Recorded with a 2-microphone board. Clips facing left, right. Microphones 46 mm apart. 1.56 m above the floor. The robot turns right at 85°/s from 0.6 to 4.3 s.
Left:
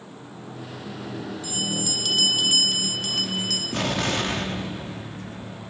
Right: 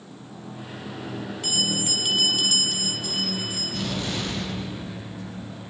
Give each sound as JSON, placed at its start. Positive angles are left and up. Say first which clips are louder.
{"t": 1.4, "sound": "a bell", "louder": "right 3 dB", "azimuth_deg": -75, "distance_m": 6.5}
{"t": 3.7, "sound": "an explosion", "louder": "left 5 dB", "azimuth_deg": 70, "distance_m": 4.0}